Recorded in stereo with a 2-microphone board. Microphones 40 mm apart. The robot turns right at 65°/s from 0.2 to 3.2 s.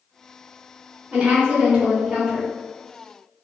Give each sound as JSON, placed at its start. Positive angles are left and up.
{"t": 1.1, "sound": "a woman speaking", "azimuth_deg": -110, "distance_m": 1.5}